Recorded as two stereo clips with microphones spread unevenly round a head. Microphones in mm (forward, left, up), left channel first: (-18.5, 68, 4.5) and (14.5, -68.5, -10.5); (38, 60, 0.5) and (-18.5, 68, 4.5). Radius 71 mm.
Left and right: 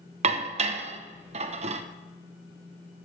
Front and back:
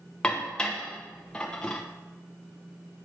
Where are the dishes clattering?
80° right, 0.8 m.